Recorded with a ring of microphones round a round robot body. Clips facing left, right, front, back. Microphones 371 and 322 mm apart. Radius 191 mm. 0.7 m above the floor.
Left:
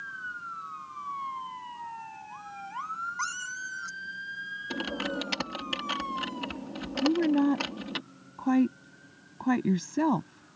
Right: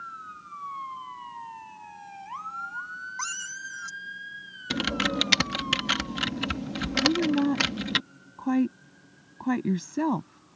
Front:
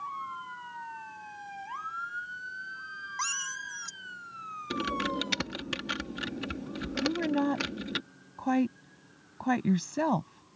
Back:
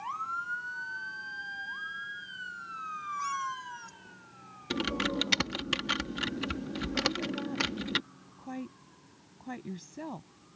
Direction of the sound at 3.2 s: 10° right.